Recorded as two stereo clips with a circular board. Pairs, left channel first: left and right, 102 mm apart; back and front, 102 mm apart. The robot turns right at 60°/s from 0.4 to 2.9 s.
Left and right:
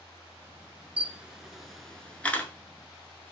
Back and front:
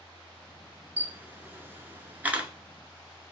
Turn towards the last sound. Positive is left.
turn(degrees=75)